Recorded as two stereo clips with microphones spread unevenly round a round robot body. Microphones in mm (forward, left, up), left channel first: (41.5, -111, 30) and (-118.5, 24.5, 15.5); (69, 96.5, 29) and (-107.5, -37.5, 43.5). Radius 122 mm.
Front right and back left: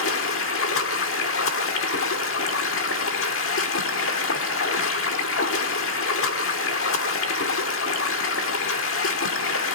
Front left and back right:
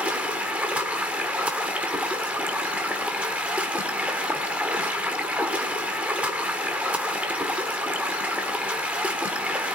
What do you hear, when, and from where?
0.0 s running water: 60° right, 1.6 m